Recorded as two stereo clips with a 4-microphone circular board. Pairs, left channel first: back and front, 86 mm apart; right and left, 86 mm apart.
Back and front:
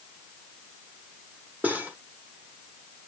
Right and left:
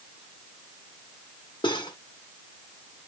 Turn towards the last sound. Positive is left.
turn(degrees=-70)